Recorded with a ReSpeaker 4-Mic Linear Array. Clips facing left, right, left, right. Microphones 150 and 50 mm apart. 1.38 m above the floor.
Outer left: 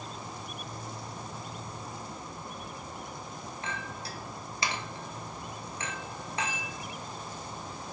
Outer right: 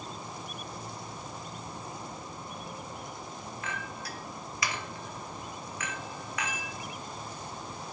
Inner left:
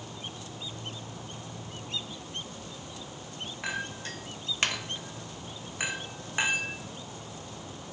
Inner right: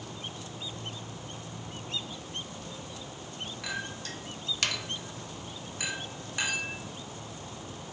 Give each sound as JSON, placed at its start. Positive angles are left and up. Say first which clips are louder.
{"t": 3.6, "sound": "a clink", "louder": "outer left 1 dB, inner left 3 dB", "side_deg": 30, "distance_m": 0.6}